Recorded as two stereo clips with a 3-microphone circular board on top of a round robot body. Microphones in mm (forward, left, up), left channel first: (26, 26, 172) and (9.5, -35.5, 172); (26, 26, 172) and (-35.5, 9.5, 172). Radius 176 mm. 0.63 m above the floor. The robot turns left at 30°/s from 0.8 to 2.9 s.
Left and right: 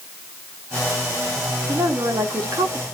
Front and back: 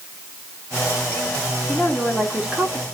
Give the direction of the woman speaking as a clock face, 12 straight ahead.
2 o'clock.